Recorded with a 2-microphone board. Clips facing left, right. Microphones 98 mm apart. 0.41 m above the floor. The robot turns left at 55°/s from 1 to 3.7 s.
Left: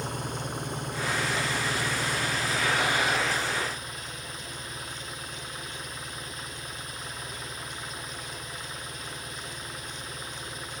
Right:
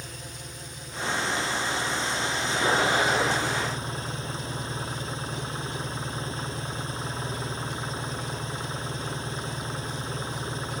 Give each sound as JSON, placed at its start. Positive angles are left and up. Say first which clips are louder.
{"t": 0.0, "sound": "an engine running", "louder": "left 8 dB", "azimuth_deg": 120}